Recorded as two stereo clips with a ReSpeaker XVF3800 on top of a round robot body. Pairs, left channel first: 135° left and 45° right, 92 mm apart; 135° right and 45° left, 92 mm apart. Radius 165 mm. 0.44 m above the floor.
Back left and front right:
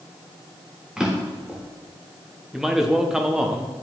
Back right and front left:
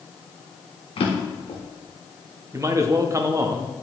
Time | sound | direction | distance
1.0 | a drawer | 130° right | 1.3 m
2.5 | a man speaking | 35° left | 0.8 m